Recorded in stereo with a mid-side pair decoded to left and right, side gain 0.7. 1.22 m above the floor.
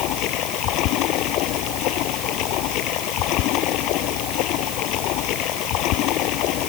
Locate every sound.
0.0 s running water: 60° left